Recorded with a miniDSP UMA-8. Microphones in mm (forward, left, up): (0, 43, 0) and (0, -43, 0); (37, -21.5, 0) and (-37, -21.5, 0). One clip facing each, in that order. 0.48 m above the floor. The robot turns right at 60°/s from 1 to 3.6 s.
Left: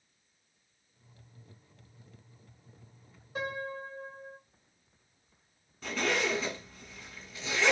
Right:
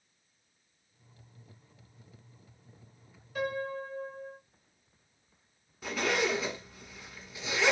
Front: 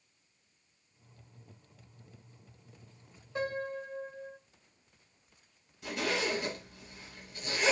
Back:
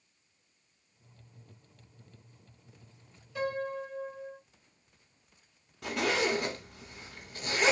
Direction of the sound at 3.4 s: 45° left.